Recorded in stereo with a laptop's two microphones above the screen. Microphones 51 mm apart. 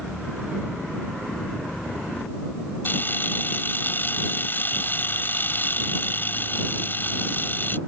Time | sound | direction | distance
2.9 | a camera shutter | 40° left (ahead or behind) | ?